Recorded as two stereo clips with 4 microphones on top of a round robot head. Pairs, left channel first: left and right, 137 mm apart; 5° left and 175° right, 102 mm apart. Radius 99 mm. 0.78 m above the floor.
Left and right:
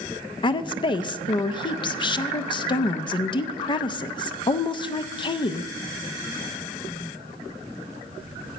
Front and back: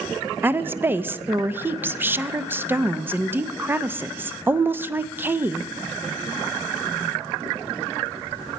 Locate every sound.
0.4 s a woman speaking: 125° left, 0.6 m